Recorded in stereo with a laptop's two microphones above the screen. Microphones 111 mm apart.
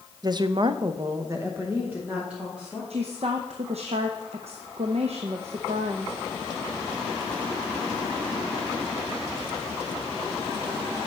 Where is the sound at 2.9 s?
70° right (ahead or behind), 0.6 m.